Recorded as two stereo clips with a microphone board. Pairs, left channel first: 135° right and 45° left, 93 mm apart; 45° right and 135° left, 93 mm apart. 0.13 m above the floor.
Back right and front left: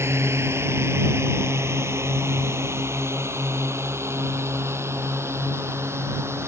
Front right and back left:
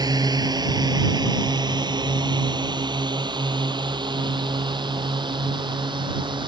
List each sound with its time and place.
0.0 s a drone: 100° left; by 6.5 s 105° left